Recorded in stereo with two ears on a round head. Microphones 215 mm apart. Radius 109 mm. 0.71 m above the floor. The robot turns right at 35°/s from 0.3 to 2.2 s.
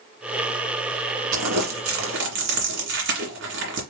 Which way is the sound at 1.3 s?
75° right (ahead or behind).